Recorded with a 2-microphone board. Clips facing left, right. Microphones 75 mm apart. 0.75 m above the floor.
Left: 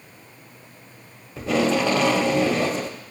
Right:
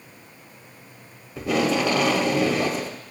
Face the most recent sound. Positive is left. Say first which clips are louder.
# left 1 dB
turn(degrees=-5)  # may be behind; listen again after turning